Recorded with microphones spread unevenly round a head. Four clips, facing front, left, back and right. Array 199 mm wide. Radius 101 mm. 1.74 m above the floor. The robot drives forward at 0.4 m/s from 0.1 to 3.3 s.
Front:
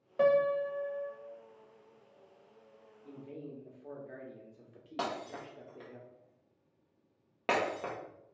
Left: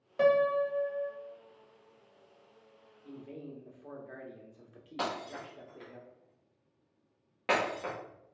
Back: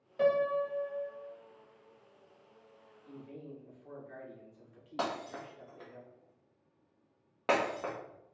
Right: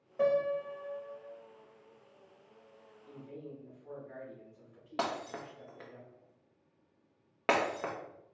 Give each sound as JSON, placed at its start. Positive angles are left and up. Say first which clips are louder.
{"t": 0.2, "sound": "a piano", "louder": "left 4 dB, front 2 dB", "azimuth_deg": 25, "distance_m": 0.5}
{"t": 3.0, "sound": "a man speaking", "louder": "left 2 dB, front 2 dB", "azimuth_deg": 40, "distance_m": 1.3}
{"t": 5.0, "sound": "breaking glass", "louder": "right 1 dB, back 1 dB", "azimuth_deg": -90, "distance_m": 1.0}